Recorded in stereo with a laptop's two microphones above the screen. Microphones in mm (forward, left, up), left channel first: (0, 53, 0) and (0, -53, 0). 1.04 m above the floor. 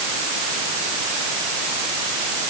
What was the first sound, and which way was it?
Only background noise.